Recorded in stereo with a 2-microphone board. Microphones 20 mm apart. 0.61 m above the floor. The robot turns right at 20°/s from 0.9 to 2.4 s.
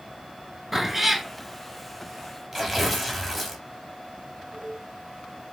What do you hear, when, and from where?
0.7 s a cat meowing: centre (ahead or behind), 0.7 m; by 1.3 s 5° left (ahead or behind), 0.7 m
2.5 s tearing paper: centre (ahead or behind), 1.4 m